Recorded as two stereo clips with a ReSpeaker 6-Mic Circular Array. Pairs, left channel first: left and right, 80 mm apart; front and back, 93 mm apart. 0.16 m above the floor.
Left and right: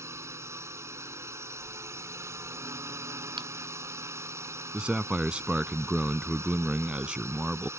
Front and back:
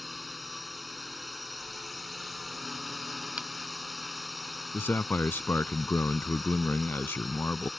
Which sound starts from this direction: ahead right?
A man speaking, at 4.7 s.